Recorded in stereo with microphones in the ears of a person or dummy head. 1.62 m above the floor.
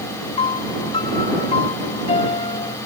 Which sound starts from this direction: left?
A piano, at 0.4 s.